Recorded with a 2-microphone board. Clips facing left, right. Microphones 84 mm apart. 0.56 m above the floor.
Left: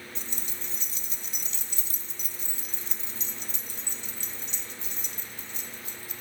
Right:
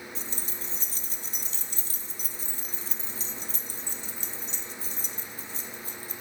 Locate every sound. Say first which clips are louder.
0.1 s keys jangling: right 2 dB; 40° right (ahead or behind), 0.5 m